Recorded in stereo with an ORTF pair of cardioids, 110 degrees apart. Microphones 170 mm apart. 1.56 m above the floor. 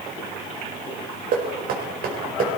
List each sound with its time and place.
1.3 s knocking: 60° right, 5 m